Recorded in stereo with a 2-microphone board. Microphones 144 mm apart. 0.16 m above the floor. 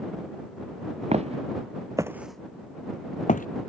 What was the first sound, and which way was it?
Footsteps, 50° right (ahead or behind).